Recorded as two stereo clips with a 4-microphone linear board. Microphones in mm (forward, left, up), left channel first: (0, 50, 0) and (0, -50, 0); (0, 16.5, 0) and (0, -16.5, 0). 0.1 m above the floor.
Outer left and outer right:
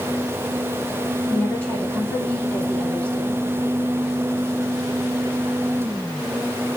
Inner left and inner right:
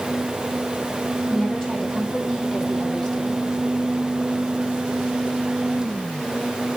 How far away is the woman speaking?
About 3.5 m.